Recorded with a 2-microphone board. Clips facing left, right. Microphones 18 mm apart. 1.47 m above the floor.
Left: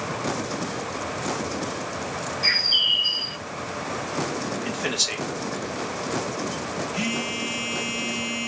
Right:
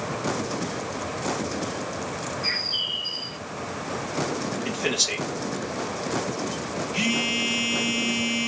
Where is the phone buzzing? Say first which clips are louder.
Right 5 dB; 20° right (ahead or behind), 1.1 m.